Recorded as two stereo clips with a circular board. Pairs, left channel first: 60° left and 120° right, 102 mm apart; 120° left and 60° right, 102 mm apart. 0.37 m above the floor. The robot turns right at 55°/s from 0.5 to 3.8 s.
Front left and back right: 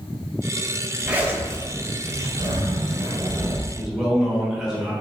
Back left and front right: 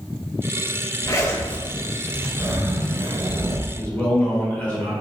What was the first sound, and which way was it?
A zipper, 165° left.